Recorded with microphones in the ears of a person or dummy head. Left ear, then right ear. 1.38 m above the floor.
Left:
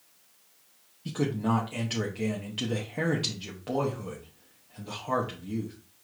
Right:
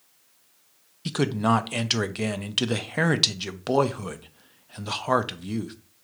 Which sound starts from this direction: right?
A man speaking, at 1.1 s.